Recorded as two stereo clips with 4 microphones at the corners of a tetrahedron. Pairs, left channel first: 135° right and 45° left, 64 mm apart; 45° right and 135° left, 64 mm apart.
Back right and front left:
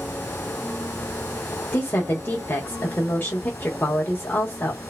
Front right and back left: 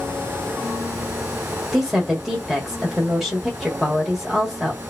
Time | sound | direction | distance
1.7 | a woman speaking | 135° right | 1.1 m